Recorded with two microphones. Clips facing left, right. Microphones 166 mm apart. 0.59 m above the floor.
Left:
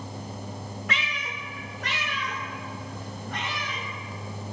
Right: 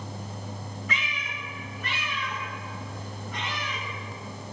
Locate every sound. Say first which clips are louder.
0.9 s a cat meowing: left 2 dB; 65° left (ahead or behind), 0.9 m; by 3.8 s 70° left (ahead or behind), 2 m